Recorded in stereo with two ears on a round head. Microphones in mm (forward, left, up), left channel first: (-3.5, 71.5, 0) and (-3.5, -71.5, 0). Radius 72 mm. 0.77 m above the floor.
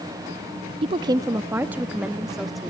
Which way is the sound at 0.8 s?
35° right (ahead or behind).